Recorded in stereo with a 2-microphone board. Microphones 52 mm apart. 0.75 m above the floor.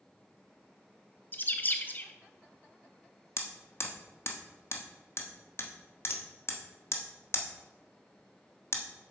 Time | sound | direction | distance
1.3 | a bird | 35° left (ahead or behind) | 0.7 m
3.4 | hammering | 55° left (ahead or behind) | 1.1 m